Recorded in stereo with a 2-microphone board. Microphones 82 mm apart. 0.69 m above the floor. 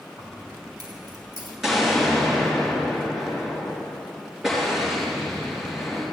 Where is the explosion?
5° right (ahead or behind), 4 m.